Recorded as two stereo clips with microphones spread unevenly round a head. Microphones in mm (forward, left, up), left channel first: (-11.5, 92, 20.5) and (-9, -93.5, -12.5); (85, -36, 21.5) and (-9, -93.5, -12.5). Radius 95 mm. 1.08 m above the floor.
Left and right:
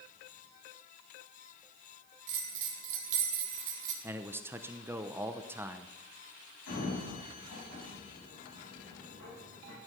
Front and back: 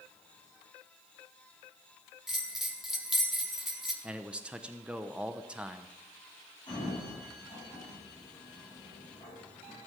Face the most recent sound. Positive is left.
turn(degrees=95)